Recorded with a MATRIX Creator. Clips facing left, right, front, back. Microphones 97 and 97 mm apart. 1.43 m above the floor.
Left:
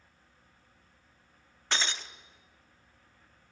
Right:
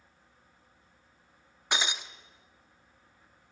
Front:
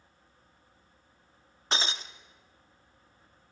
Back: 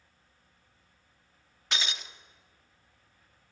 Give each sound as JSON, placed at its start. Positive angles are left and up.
{"t": 1.7, "sound": "breaking glass", "azimuth_deg": -25, "distance_m": 1.0}